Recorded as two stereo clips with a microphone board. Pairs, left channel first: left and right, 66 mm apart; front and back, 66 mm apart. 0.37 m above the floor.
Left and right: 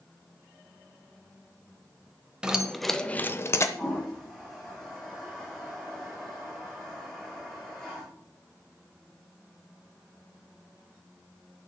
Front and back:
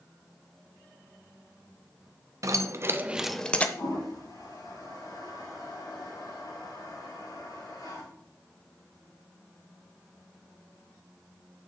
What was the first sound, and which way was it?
Keys jangling, 165° right.